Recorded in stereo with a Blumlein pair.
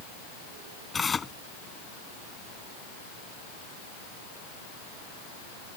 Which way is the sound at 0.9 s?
15° left.